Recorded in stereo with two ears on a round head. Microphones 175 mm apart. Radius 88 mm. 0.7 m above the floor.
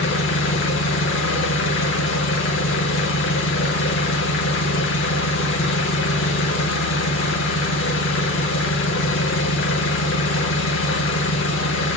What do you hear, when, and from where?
0.0 s an engine running: 65° left (ahead or behind), 0.9 m